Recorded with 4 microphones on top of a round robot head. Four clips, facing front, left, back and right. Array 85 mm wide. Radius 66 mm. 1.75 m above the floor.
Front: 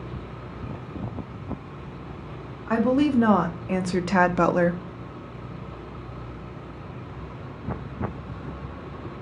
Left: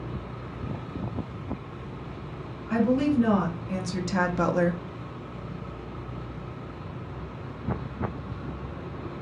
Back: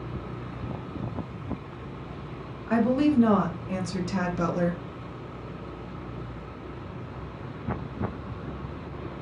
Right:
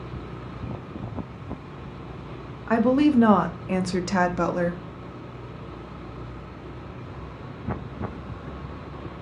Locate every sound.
2.7 s a woman speaking: 70° right, 1.2 m; by 4.8 s 25° left, 0.6 m